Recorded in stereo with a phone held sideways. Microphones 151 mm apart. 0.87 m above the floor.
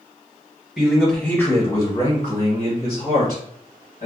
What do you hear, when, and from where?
0.8 s a man speaking: 10° right (ahead or behind), 0.8 m; by 4.0 s 75° left (ahead or behind), 1.6 m